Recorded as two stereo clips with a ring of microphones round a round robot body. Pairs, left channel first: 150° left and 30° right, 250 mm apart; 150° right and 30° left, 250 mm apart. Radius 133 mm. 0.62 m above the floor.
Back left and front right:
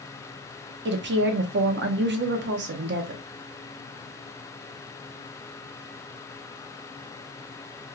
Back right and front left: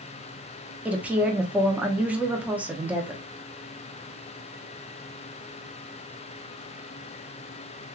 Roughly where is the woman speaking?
Ahead right.